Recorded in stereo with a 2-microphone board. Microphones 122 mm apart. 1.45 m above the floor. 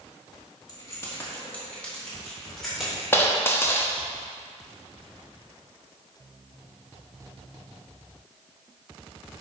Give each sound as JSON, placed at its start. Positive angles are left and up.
{"t": 0.7, "sound": "keys jangling", "side_deg": 30, "distance_m": 2.0}
{"t": 3.1, "sound": "a dropped coin", "side_deg": 20, "distance_m": 1.1}